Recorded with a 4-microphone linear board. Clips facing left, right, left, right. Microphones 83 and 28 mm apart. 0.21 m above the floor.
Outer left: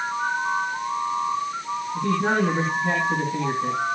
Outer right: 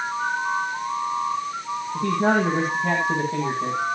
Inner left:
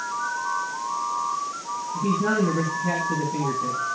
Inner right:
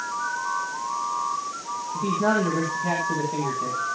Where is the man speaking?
55° right (ahead or behind), 9.5 m.